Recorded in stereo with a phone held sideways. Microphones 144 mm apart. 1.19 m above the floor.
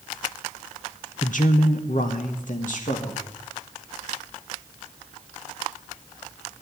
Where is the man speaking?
60° left (ahead or behind), 0.7 m.